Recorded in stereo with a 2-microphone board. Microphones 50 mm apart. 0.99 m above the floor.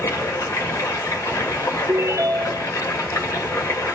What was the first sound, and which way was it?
Running water, 85° left.